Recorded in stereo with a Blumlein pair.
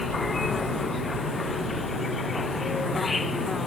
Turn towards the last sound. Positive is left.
turn(degrees=10)